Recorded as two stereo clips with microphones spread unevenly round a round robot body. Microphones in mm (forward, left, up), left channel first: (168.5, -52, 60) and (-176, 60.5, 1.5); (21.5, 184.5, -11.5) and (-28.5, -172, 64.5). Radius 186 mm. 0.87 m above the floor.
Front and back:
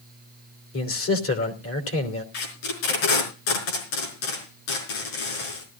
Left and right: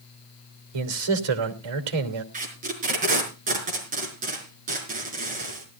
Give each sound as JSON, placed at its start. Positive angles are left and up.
{"t": 0.7, "sound": "a man speaking", "azimuth_deg": -75, "distance_m": 3.0}
{"t": 2.3, "sound": "tape being pulled", "azimuth_deg": -30, "distance_m": 5.0}